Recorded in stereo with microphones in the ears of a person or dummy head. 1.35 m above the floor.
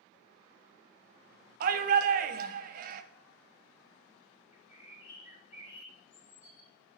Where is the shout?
50° right (ahead or behind), 0.6 m.